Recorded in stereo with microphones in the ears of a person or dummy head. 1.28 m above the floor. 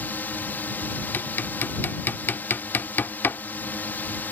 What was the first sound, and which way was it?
A drone, 5° left (ahead or behind).